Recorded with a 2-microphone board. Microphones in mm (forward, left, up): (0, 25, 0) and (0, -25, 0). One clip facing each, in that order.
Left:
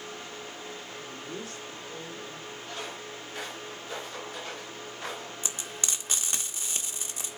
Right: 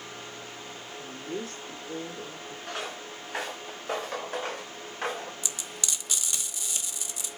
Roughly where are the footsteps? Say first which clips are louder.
Right 4 dB; right.